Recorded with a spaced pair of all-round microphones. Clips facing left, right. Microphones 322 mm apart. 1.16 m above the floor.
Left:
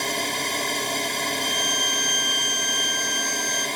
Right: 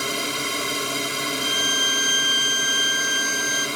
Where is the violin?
25° left (ahead or behind).